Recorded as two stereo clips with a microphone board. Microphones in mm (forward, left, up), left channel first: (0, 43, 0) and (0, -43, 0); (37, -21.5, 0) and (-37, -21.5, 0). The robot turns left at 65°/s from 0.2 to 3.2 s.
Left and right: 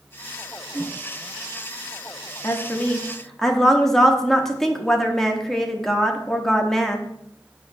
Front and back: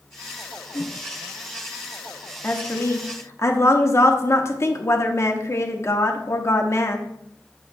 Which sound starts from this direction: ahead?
A whoosh, at 0.7 s.